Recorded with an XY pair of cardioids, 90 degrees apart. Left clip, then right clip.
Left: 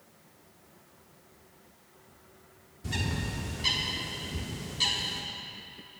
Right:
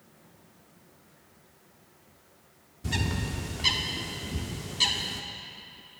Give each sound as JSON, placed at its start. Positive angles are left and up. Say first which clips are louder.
{"t": 2.8, "sound": "a bird", "louder": "right 2 dB", "azimuth_deg": -35, "distance_m": 1.1}